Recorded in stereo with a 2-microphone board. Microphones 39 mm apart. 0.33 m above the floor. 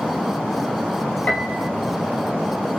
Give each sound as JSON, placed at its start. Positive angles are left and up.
{"t": 1.3, "sound": "a piano", "side_deg": 45, "distance_m": 1.6}